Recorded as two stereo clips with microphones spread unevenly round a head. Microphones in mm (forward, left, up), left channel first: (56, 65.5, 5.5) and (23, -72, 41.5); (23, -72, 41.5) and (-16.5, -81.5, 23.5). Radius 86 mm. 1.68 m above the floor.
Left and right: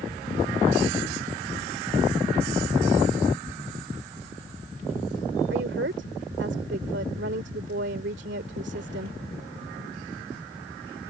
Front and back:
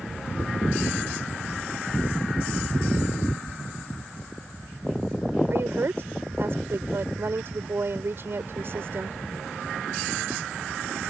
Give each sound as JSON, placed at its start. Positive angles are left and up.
{"t": 5.5, "sound": "a woman speaking", "azimuth_deg": -130}